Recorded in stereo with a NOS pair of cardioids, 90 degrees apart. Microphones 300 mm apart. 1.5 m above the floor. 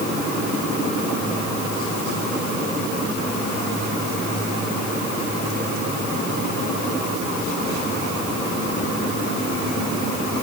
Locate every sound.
Only background noise.